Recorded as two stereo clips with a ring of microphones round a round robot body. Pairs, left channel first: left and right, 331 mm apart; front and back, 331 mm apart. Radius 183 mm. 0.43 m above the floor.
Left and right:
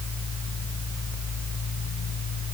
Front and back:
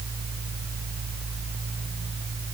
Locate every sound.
Only background noise.